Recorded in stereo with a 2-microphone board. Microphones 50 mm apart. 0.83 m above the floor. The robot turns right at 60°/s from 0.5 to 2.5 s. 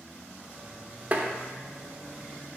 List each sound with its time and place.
1.1 s tapping: 30° right (ahead or behind), 0.5 m; by 1.3 s 40° right (ahead or behind), 0.5 m